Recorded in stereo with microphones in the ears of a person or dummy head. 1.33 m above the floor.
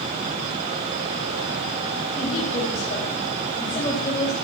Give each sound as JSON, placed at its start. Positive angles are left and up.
{"t": 2.2, "sound": "a woman speaking", "side_deg": 40, "distance_m": 3.5}